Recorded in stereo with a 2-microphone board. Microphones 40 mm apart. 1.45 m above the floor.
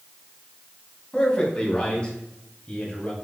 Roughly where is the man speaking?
Centre.